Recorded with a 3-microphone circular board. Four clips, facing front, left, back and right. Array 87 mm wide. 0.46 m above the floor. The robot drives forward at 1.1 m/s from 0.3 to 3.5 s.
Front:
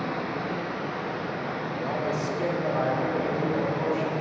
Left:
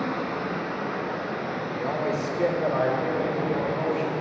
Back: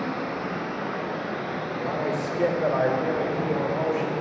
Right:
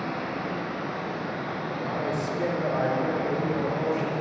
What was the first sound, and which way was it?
Running water, 100° left.